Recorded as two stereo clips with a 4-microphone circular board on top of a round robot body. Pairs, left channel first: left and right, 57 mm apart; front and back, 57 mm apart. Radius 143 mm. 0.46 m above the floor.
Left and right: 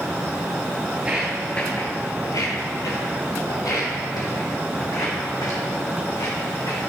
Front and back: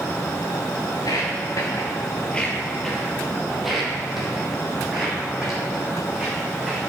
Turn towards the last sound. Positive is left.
turn(degrees=100)